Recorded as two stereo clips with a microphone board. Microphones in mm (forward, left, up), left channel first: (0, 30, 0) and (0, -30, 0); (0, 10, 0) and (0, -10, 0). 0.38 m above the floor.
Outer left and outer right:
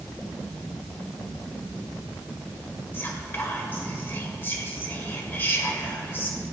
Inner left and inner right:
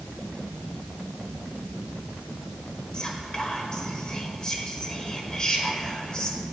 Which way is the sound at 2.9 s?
40° left (ahead or behind).